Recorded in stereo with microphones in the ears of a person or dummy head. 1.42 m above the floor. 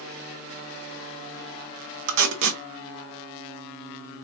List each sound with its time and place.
2.1 s tape being pulled: 70° right (ahead or behind), 1.0 m